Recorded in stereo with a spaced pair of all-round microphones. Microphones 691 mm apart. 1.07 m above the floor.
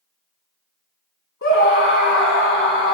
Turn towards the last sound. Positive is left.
turn(degrees=20)  # may be behind; listen again after turning